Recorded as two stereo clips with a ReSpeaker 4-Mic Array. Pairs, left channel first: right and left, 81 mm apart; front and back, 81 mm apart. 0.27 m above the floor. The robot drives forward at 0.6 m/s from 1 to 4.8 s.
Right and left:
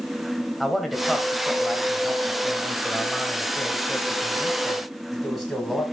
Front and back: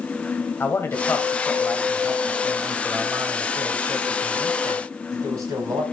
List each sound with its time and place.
0.6 s a man speaking: straight ahead, 1.4 m; by 5.8 s straight behind, 2.0 m